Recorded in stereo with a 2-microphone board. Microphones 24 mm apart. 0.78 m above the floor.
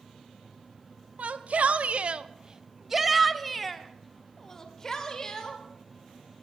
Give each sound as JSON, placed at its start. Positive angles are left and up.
{"t": 1.2, "sound": "a shout", "side_deg": -70, "distance_m": 1.1}